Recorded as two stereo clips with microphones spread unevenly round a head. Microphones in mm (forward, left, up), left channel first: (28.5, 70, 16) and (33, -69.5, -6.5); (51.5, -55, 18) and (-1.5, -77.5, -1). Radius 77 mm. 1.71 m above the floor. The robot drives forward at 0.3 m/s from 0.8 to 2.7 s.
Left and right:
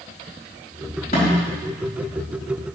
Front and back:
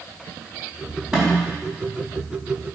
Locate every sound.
1.1 s a snare drum: 120° left, 4 m